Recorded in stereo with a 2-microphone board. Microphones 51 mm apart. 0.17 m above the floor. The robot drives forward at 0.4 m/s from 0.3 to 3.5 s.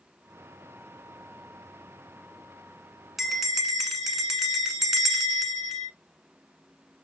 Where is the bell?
Centre (ahead or behind), 0.7 m.